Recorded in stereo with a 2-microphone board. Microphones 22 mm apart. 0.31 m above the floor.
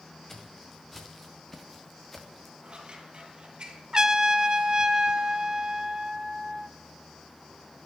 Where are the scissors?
45° right (ahead or behind), 3 m.